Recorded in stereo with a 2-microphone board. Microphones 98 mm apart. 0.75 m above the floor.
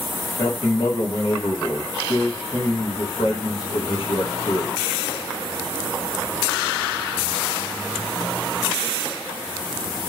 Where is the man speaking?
60° left (ahead or behind), 2 m.